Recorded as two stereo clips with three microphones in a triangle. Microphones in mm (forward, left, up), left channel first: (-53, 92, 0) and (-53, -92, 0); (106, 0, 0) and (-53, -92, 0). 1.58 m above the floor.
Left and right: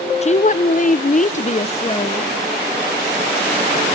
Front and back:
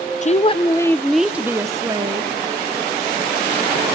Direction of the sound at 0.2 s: 55° left.